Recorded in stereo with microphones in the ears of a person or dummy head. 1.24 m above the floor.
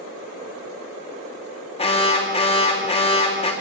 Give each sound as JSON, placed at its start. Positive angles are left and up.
{"t": 1.8, "sound": "an alarm", "side_deg": 25, "distance_m": 3.0}